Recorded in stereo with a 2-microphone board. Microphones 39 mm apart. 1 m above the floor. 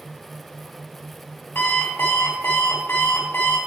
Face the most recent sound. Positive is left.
turn(degrees=80)